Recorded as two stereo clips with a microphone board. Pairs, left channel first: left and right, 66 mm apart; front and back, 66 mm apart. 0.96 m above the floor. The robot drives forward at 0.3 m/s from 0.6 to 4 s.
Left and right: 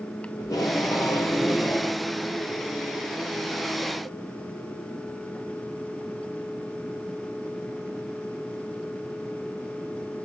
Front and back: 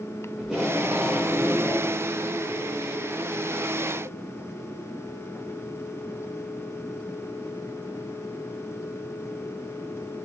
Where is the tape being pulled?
95° left, 1.1 m; by 2.0 s 120° left, 1.3 m.